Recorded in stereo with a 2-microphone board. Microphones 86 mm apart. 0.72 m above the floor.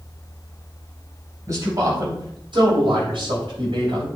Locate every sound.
1.5 s a man speaking: 40° right (ahead or behind), 3.5 m; by 4.1 s 75° right (ahead or behind), 3 m